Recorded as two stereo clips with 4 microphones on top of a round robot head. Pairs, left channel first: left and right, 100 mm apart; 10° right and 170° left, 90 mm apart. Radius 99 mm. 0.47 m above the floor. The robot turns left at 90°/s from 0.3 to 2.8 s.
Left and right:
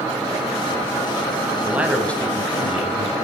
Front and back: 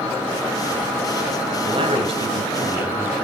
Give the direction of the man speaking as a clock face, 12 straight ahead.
5 o'clock.